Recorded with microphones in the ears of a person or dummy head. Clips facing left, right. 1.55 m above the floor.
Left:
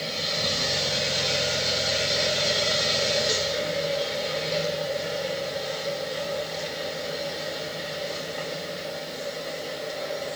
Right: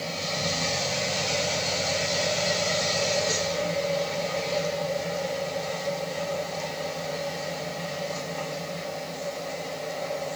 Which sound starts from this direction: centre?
A machine running, at 0.0 s.